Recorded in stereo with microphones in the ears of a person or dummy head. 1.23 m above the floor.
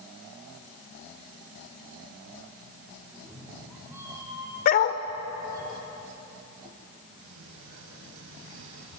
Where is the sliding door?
80° right, 6 m.